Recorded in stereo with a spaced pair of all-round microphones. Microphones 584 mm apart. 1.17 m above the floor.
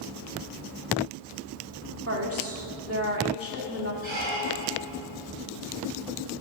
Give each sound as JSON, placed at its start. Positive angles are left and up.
{"t": 2.1, "sound": "a woman speaking", "side_deg": -25, "distance_m": 2.5}
{"t": 4.0, "sound": "a squeak", "side_deg": -50, "distance_m": 6.5}